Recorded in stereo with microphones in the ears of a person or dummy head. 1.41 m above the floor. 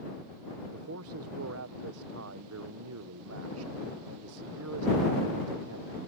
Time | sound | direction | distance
0.7 | a man speaking | 85° right | ?